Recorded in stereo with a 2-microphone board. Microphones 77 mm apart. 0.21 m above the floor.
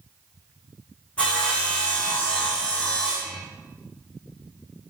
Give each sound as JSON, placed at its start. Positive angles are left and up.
{"t": 1.2, "sound": "sawing", "side_deg": 20, "distance_m": 6.0}